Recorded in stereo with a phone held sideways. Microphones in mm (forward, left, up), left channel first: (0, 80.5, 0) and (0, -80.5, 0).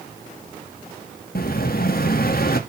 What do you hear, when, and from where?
1.4 s an explosion: 70° left (ahead or behind), 0.7 m